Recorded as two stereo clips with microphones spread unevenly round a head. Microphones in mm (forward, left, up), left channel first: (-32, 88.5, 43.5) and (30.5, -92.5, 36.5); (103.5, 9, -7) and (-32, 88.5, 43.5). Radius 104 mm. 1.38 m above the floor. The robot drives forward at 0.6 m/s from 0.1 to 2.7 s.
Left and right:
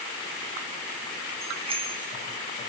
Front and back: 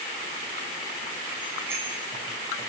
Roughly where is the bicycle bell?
Behind right.